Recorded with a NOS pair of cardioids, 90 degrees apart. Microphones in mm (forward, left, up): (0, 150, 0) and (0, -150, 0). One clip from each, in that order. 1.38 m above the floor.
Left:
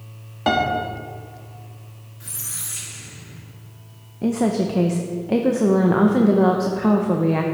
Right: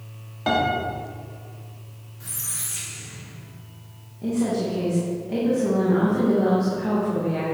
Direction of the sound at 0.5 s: 25° left.